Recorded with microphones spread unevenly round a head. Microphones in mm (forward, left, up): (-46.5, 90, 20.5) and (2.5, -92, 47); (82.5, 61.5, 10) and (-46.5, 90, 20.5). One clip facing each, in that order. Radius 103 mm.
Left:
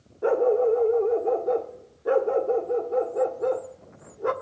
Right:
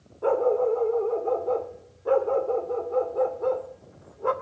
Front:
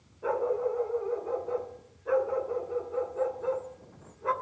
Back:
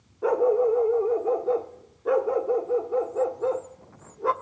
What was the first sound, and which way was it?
A dog barking, 175° right.